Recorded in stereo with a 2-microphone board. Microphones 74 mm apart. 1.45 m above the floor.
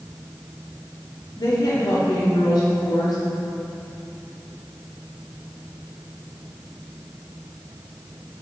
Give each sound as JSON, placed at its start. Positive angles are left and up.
{"t": 1.4, "sound": "a woman speaking", "side_deg": 75, "distance_m": 1.6}